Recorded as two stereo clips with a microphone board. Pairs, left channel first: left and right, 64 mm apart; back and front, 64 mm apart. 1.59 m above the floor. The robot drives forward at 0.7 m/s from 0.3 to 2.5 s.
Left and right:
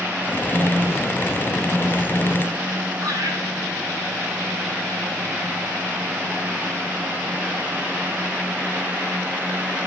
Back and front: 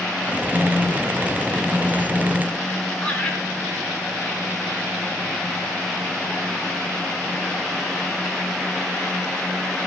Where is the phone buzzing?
110° right, 0.6 m; by 2.7 s 165° right, 1.7 m.